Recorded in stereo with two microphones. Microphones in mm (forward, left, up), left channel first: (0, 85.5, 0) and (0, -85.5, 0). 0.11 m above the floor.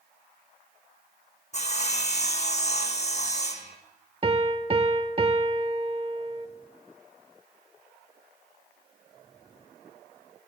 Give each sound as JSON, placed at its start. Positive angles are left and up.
{"t": 1.5, "sound": "sawing", "side_deg": 45, "distance_m": 1.2}
{"t": 4.2, "sound": "a piano", "side_deg": -35, "distance_m": 0.6}